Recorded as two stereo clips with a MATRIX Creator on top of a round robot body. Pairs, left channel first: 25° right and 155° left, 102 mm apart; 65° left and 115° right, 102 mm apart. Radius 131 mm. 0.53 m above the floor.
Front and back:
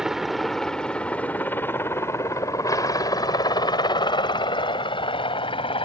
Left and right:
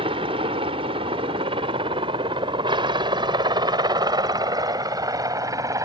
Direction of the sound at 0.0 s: 120° right.